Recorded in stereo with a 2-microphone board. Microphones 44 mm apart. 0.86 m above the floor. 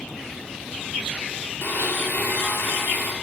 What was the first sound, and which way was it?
A blender, 60° left (ahead or behind).